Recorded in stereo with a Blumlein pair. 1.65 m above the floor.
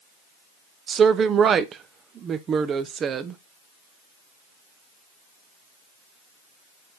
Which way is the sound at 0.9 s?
25° right.